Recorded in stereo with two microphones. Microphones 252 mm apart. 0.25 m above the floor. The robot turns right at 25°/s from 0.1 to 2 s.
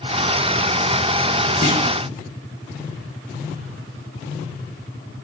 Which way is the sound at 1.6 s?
55° right (ahead or behind).